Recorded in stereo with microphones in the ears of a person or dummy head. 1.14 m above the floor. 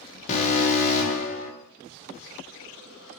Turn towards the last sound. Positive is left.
turn(degrees=40)  # may be behind; listen again after turning